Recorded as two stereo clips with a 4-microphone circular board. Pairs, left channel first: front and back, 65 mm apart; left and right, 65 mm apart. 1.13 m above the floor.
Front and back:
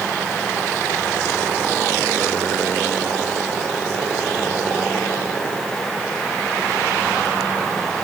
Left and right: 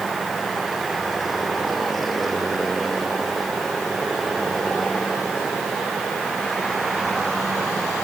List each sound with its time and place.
Only background noise.